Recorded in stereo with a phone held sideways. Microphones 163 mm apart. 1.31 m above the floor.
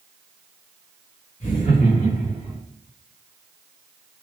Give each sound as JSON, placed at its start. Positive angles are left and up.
{"t": 1.4, "sound": "laughter", "side_deg": 50, "distance_m": 0.6}